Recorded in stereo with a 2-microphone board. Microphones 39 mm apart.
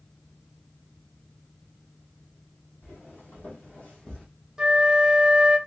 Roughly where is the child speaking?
I don't hear a child speaking.